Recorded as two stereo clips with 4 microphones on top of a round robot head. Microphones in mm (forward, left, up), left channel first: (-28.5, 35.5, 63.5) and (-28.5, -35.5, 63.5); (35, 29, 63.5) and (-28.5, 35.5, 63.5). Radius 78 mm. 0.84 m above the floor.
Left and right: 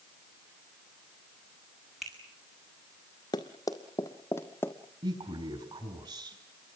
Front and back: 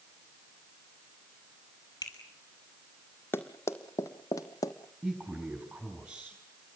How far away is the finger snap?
About 6.5 m.